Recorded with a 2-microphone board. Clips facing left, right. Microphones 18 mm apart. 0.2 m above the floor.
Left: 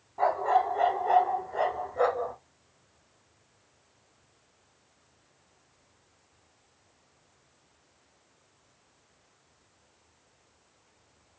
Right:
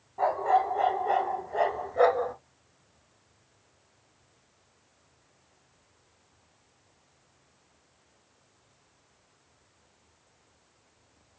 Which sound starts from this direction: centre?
A dog barking, at 0.2 s.